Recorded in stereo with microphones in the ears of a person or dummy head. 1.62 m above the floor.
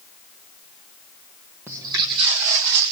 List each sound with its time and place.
1.7 s footsteps: 20° right (ahead or behind), 1.8 m; by 2.9 s 45° right (ahead or behind), 2.5 m